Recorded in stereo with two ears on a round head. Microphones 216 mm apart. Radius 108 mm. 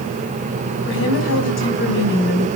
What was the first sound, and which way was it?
A woman speaking, 55° left (ahead or behind).